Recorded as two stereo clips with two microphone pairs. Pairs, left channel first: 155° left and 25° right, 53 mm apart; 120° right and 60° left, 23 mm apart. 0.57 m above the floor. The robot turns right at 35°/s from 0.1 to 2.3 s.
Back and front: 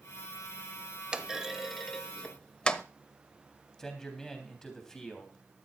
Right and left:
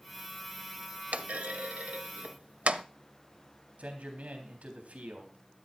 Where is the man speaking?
75° left, 3.5 m.